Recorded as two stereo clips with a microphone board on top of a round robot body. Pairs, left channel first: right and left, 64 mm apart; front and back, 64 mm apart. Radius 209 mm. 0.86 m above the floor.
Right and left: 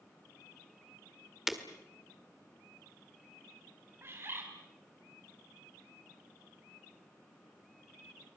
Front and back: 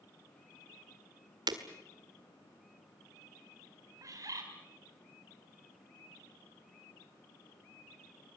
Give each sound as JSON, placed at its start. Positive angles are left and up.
{"t": 1.5, "sound": "breaking glass", "azimuth_deg": 175, "distance_m": 1.7}
{"t": 4.0, "sound": "a bird", "azimuth_deg": 145, "distance_m": 4.0}